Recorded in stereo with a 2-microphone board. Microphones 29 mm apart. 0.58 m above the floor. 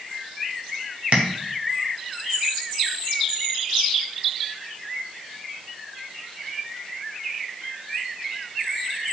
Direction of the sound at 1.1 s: 55° right (ahead or behind).